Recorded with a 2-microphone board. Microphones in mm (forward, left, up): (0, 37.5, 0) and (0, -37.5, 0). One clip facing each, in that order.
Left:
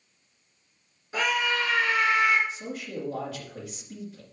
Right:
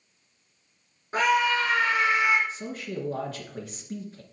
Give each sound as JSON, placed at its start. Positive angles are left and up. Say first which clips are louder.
{"t": 1.1, "sound": "a scream", "louder": "right 4 dB", "side_deg": -45, "distance_m": 1.9}
{"t": 2.5, "sound": "a man speaking", "louder": "right 1 dB", "side_deg": -45, "distance_m": 2.5}